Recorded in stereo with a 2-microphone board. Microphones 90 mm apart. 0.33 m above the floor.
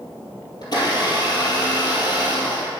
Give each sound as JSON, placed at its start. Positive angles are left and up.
{"t": 0.6, "sound": "a blender", "side_deg": 50, "distance_m": 2.0}